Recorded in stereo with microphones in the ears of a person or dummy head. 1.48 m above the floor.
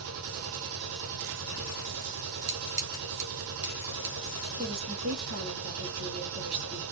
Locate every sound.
0.0 s a machine running: 75° right (ahead or behind), 0.8 m
2.5 s scissors: 70° right (ahead or behind), 2.5 m
4.6 s a woman speaking: 50° right (ahead or behind), 3 m